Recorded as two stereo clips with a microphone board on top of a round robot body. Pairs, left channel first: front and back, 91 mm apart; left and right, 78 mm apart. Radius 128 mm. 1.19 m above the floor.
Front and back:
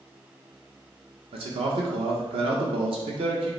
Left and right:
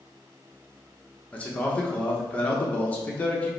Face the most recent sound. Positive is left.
turn(degrees=165)